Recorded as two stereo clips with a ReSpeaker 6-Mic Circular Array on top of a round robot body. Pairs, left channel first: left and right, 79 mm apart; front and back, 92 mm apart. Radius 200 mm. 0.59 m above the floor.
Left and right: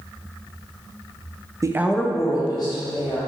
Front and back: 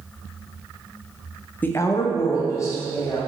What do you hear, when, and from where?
1.6 s a woman speaking: 65° right, 0.8 m; by 3.2 s 60° left, 2 m